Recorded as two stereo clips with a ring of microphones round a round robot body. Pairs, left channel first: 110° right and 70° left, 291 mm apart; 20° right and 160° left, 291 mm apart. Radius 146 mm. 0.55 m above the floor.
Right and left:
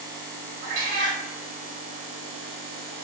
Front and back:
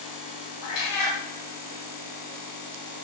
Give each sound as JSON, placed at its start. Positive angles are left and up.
{"t": 0.6, "sound": "a cat meowing", "azimuth_deg": 5, "distance_m": 1.0}